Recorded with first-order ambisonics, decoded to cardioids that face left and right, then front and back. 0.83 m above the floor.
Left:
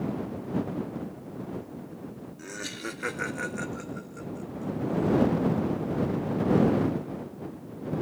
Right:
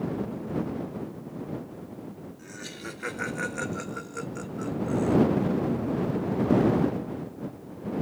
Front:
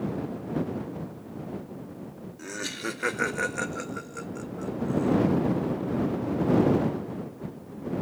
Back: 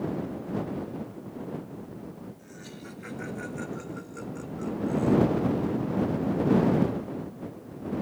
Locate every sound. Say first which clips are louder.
2.4 s laughter: left 5 dB, front 12 dB; 25° left; by 5.2 s 100° right